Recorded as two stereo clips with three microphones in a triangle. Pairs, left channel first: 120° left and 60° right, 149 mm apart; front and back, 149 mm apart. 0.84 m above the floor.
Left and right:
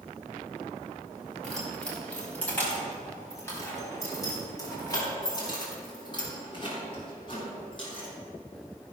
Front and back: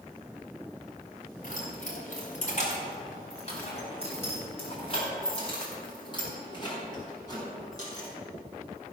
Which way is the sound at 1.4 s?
35° left.